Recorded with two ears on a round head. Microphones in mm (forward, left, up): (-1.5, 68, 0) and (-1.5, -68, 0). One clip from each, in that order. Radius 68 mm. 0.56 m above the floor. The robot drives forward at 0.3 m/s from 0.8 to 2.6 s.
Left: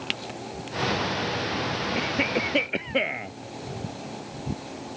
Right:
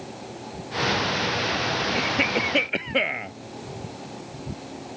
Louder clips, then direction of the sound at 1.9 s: Right 1 dB; 20° right (ahead or behind).